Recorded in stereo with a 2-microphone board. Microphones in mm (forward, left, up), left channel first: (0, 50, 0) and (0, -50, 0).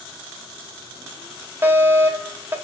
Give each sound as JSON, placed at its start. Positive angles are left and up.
{"t": 1.6, "sound": "a fire alarm", "side_deg": -25, "distance_m": 2.0}